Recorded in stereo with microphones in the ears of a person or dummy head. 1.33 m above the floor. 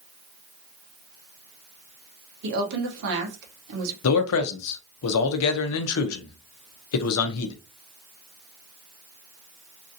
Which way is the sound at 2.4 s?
60° right (ahead or behind).